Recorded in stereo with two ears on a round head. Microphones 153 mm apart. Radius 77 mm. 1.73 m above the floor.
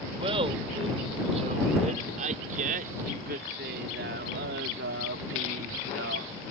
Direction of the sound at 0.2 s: 35° right (ahead or behind).